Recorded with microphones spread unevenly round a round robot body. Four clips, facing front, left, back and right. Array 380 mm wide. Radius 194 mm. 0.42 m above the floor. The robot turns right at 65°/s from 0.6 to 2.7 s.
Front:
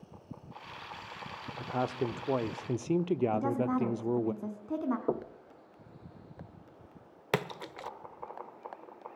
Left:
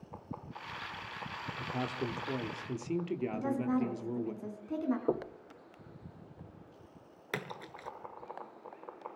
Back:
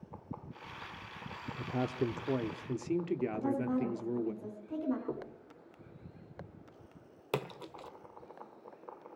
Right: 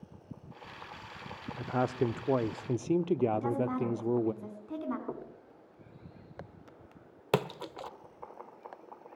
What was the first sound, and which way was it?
A man speaking, 135° right.